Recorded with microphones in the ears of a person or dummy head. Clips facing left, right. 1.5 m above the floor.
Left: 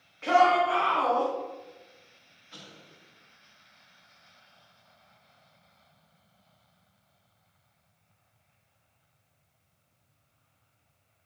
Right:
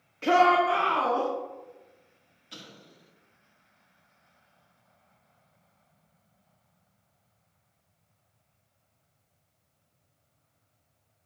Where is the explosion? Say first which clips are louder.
Right 2 dB; 55° right (ahead or behind), 2.5 m.